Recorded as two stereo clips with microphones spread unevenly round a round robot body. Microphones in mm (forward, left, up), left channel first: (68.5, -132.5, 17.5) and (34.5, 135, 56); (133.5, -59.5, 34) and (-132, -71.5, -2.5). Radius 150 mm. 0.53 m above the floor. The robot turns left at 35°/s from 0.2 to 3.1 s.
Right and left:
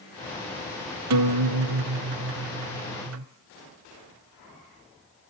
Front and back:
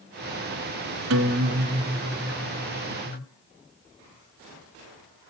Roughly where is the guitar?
Behind left.